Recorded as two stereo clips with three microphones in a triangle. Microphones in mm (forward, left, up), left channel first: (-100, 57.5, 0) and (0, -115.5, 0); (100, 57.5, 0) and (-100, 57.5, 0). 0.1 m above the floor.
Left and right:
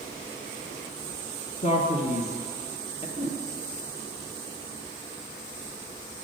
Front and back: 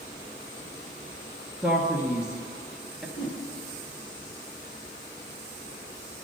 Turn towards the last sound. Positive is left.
turn(degrees=65)